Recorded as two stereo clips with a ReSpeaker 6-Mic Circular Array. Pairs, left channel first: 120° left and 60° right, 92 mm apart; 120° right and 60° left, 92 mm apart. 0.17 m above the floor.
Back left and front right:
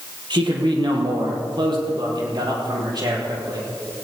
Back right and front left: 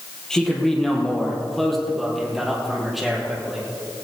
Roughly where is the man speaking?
Ahead right.